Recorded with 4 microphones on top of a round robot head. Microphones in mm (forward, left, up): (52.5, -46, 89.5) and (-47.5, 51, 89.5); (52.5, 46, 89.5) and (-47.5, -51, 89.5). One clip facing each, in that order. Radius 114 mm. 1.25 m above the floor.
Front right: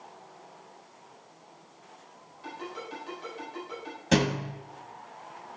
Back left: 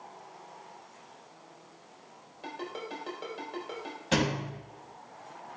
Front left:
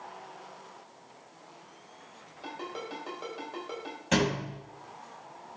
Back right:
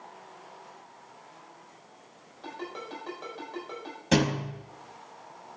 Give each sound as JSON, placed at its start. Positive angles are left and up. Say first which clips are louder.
{"t": 2.4, "sound": "a ringtone", "louder": "back left 1 dB, even", "azimuth_deg": 125, "distance_m": 5.0}
{"t": 4.1, "sound": "a thud", "louder": "front right 3 dB, back right 3 dB", "azimuth_deg": -85, "distance_m": 1.4}